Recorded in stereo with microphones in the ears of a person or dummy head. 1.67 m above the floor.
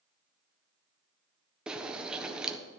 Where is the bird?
10° right (ahead or behind), 1.1 m.